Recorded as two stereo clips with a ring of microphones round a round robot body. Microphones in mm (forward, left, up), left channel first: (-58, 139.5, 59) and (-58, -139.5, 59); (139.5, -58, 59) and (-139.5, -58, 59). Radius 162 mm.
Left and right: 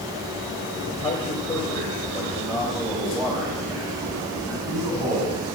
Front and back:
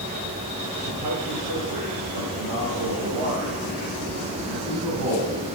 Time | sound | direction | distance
0.8 | a man speaking | 155° left | 3 m